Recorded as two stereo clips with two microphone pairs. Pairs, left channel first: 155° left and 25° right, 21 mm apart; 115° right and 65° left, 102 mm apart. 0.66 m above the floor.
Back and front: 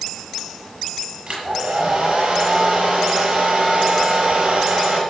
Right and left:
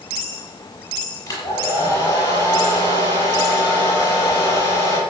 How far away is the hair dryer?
About 7.5 m.